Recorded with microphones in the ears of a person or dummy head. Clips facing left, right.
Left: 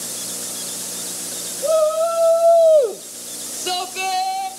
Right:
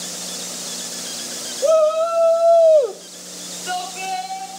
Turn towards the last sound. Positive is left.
turn(degrees=80)